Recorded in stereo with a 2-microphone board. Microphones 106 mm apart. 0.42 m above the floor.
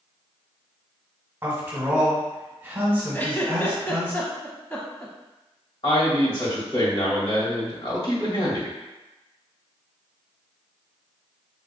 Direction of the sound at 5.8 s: 55° left (ahead or behind).